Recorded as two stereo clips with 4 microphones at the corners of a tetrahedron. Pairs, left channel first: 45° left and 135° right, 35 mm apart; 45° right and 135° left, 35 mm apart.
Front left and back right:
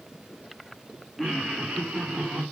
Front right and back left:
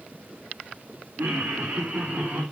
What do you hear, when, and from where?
1.2 s laughter: 150° left, 2 m; by 2.4 s straight behind, 3 m